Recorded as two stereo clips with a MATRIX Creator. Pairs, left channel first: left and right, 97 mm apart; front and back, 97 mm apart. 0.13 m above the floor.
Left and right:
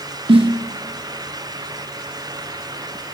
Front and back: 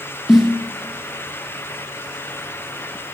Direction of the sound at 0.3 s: 90° right.